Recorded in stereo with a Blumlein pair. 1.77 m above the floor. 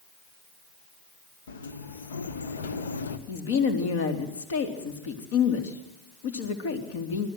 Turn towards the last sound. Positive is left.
turn(degrees=55)